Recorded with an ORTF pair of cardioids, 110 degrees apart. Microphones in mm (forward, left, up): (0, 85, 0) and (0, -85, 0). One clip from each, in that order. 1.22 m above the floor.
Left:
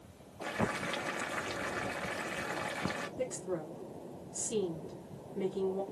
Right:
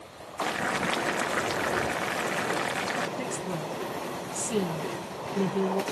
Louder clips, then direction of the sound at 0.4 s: Right 7 dB; 45° right.